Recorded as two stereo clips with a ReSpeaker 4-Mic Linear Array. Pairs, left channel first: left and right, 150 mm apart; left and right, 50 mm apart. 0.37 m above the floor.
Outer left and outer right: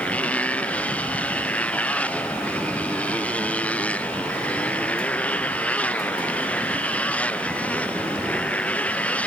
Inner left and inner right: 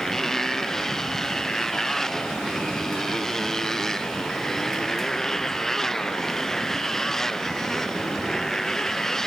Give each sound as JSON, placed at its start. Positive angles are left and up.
{"t": 0.0, "sound": "a motorcycle", "side_deg": 10}